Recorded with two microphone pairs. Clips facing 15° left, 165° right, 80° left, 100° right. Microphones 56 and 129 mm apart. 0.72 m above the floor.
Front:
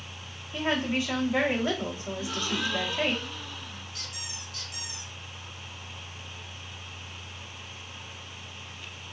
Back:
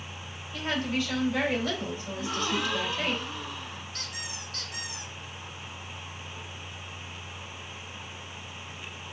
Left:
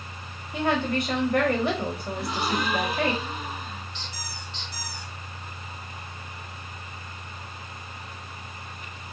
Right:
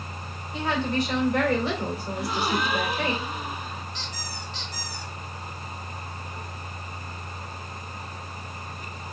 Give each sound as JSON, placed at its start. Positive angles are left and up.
{"t": 0.5, "sound": "a woman speaking", "azimuth_deg": 75, "distance_m": 1.8}
{"t": 2.1, "sound": "a gasp", "azimuth_deg": 175, "distance_m": 2.0}
{"t": 3.9, "sound": "a squeak", "azimuth_deg": -145, "distance_m": 1.6}